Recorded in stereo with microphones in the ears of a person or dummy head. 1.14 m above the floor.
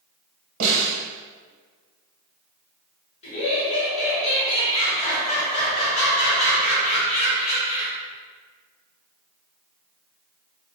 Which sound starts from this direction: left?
Laughter, at 3.2 s.